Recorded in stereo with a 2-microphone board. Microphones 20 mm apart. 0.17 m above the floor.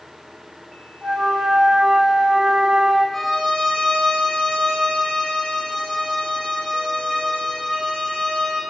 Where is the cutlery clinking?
I don't hear cutlery clinking.